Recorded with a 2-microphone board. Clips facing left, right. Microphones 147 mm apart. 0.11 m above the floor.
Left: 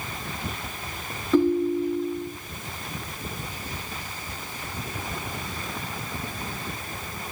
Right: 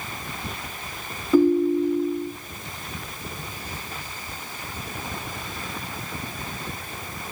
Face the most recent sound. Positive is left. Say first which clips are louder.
# right 3 dB
turn(degrees=-5)  # may be behind; listen again after turning